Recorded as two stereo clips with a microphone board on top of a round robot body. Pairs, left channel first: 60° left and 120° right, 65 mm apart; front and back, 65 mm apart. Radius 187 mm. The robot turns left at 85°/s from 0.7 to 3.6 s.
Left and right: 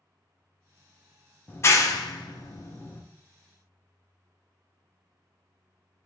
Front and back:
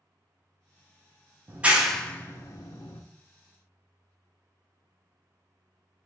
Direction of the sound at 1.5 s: 125° left.